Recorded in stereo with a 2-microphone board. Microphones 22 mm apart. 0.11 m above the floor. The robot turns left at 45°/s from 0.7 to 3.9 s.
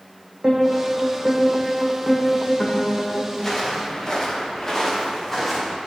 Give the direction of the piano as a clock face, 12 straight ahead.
4 o'clock.